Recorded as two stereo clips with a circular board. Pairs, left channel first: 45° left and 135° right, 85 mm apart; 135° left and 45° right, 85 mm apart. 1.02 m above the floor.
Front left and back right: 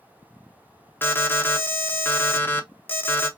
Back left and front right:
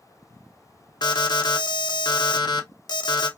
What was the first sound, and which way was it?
An alarm, 110° left.